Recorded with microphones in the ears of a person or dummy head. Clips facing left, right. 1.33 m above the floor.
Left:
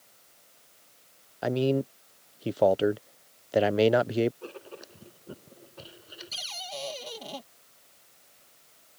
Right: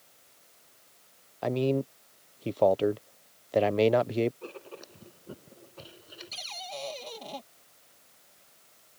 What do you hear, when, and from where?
1.4 s a man speaking: 5° left (ahead or behind)
4.4 s writing: 5° left (ahead or behind)
6.3 s a cupboard door: 10° left (ahead or behind)